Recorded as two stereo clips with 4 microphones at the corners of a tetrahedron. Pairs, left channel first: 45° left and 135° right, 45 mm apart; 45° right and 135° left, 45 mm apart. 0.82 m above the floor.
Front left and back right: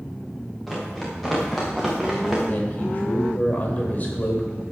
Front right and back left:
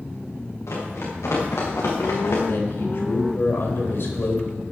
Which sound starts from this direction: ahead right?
Running footsteps, at 0.7 s.